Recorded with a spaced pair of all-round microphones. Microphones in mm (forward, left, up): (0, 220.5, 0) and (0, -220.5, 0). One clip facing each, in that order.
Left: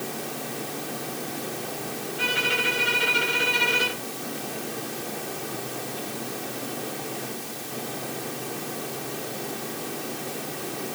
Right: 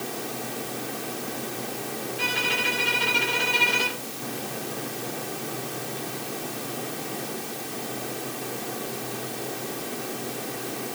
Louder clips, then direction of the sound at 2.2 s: Left 1 dB; centre (ahead or behind).